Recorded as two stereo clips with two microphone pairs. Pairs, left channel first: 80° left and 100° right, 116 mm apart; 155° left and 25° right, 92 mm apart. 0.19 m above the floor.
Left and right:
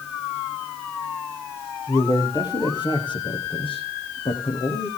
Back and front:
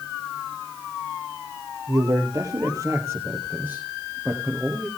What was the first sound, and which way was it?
A man speaking, 25° left.